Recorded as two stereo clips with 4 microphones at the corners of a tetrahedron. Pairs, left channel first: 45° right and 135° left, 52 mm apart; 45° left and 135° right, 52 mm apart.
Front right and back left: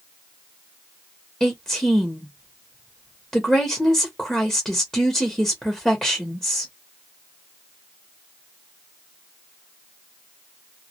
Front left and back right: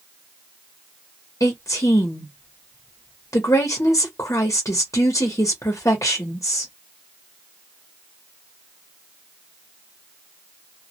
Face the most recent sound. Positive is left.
turn(degrees=30)